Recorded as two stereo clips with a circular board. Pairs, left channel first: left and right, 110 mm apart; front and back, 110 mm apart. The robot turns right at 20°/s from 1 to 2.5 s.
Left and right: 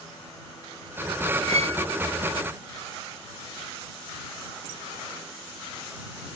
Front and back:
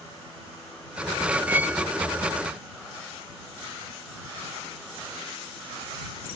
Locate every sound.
1.5 s a violin: 110° right; by 1.8 s 100° right